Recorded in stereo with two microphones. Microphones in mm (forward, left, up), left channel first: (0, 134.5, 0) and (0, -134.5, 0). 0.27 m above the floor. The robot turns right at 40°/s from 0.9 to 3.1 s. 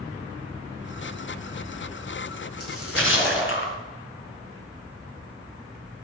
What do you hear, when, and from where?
2.6 s a splash: 65° left (ahead or behind), 3 m; by 3.8 s 50° left (ahead or behind), 3 m